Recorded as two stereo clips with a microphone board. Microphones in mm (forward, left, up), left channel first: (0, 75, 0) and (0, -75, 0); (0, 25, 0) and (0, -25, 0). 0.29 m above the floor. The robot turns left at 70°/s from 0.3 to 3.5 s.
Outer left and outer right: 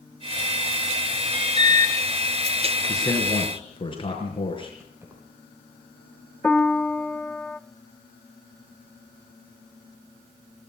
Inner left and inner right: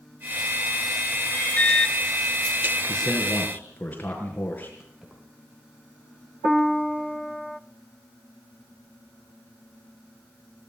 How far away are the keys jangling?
About 5.5 m.